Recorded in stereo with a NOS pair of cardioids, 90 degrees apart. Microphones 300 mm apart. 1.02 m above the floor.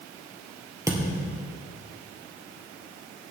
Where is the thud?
10° right, 3 m.